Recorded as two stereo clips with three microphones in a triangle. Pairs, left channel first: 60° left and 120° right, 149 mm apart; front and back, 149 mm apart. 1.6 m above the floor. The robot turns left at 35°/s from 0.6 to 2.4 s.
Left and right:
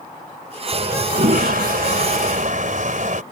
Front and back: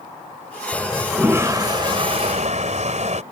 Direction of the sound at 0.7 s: 85° right.